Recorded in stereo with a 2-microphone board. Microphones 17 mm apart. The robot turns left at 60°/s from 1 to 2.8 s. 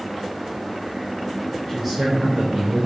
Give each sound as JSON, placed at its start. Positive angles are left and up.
{"t": 1.7, "sound": "a man speaking", "azimuth_deg": -10, "distance_m": 4.0}